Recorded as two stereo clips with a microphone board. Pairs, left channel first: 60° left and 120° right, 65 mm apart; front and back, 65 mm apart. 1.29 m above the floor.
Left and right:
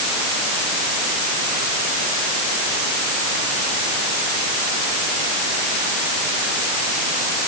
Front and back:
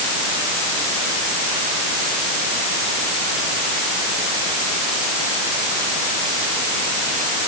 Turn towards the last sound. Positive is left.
No sound to turn to.